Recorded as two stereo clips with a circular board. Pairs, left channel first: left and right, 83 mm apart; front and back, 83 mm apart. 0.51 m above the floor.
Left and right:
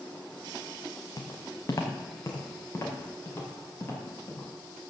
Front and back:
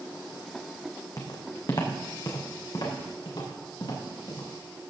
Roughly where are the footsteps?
Ahead left.